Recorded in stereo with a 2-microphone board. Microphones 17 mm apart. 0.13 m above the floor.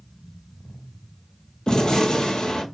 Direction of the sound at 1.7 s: 60° left (ahead or behind).